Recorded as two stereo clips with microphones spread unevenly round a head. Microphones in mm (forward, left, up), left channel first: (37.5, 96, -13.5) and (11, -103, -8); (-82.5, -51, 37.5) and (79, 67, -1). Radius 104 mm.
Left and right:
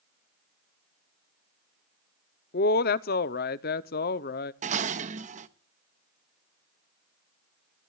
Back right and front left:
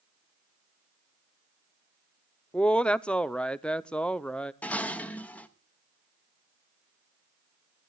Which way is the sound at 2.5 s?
125° left.